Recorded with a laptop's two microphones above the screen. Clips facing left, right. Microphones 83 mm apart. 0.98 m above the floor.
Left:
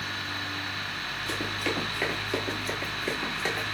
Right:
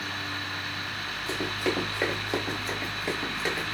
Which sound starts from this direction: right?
Running footsteps, at 1.3 s.